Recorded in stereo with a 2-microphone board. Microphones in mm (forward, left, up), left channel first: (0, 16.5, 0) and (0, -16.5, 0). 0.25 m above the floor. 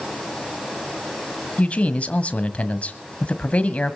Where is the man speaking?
40° left (ahead or behind), 1.7 m.